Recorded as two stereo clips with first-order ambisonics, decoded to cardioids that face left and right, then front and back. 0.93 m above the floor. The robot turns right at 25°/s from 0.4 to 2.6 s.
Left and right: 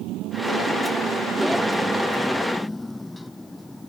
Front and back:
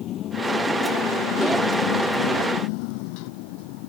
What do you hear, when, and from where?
0.0 s a motorcycle: 50° right; by 3.9 s 5° left